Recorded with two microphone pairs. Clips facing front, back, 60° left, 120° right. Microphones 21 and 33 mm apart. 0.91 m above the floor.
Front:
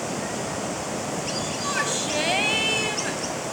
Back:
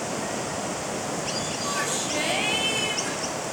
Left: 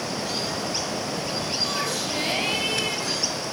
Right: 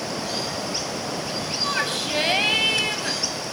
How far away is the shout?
About 7 m.